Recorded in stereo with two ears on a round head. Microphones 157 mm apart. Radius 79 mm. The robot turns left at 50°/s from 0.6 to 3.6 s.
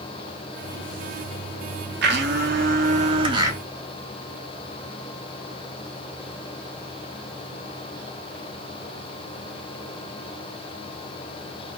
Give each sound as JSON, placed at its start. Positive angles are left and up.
{"t": 2.0, "sound": "a blender", "azimuth_deg": -85, "distance_m": 0.8}